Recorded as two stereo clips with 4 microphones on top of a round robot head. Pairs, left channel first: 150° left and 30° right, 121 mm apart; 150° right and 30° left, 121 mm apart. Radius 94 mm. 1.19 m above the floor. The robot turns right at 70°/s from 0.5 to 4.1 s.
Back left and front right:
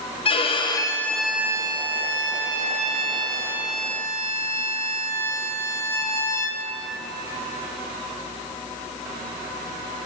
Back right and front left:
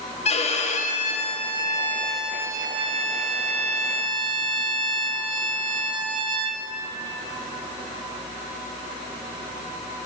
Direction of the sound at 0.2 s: 170° right.